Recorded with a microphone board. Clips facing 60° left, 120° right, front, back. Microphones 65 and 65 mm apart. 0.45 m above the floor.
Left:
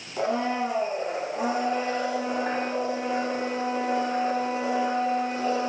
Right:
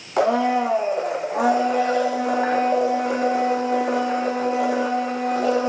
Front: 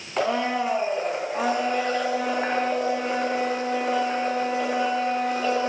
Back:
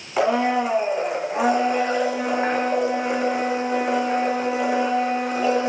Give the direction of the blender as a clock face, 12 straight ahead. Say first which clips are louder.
Right 7 dB, back 4 dB; 3 o'clock.